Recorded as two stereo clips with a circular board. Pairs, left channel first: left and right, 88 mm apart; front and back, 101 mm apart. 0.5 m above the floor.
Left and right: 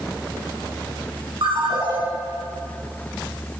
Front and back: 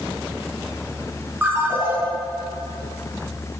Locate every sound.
1.4 s a ringtone: 110° right, 3.5 m